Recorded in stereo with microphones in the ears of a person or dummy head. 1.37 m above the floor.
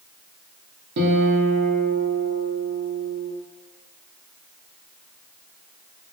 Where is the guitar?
60° right (ahead or behind), 0.6 m.